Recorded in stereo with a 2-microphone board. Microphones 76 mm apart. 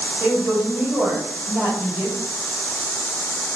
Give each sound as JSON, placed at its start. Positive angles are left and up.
{"t": 0.2, "sound": "a woman speaking", "side_deg": -35, "distance_m": 1.4}